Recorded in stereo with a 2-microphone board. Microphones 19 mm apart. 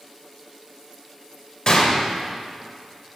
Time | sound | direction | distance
1.7 | a gunshot | 45° left (ahead or behind) | 1.6 m